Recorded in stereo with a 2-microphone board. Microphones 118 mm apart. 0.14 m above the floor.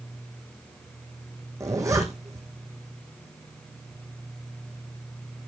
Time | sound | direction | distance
1.6 | a zipper | 25° right (ahead or behind) | 2 m